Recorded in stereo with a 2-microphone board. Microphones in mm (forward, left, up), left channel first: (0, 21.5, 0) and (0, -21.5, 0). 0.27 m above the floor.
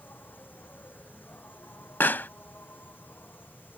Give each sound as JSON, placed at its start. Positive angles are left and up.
{"t": 0.0, "sound": "an insect", "side_deg": 45}
{"t": 2.0, "sound": "a pop", "side_deg": 50}